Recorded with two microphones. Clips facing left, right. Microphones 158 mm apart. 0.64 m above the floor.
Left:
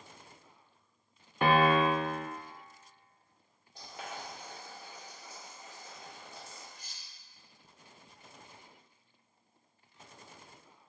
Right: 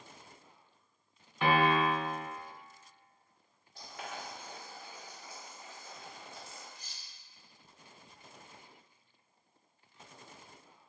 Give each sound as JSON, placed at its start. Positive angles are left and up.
{"t": 1.4, "sound": "a piano", "side_deg": 55, "distance_m": 0.5}
{"t": 3.8, "sound": "boiling", "side_deg": 20, "distance_m": 1.9}
{"t": 6.8, "sound": "cutlery clinking", "side_deg": 60, "distance_m": 0.8}